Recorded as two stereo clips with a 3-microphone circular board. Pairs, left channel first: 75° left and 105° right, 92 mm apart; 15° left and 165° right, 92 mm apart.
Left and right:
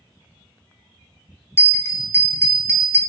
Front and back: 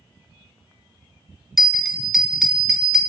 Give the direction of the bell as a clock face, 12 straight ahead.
8 o'clock.